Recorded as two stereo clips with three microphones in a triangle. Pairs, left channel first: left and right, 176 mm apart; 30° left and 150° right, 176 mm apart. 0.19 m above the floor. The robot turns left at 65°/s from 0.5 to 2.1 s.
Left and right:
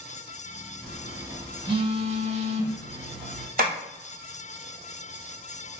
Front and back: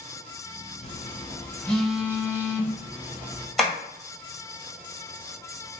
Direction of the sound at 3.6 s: 60° right.